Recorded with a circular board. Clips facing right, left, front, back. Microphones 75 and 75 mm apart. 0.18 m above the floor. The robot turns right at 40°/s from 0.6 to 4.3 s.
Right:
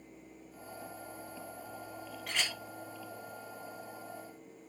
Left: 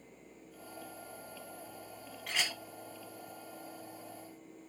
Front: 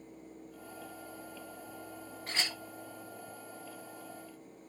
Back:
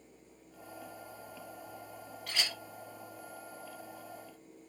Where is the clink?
Straight ahead, 0.6 m; by 2.6 s 10° left, 0.6 m.